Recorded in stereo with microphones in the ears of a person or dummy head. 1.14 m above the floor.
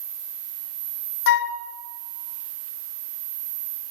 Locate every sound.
1.3 s a flute: 60° left (ahead or behind), 1.1 m